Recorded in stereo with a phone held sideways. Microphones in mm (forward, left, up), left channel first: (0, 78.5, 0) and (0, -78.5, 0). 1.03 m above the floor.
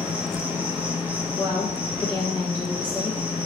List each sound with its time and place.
0.0 s an insect: 10° right (ahead or behind), 1.5 m
1.4 s a woman speaking: 10° left (ahead or behind), 1.3 m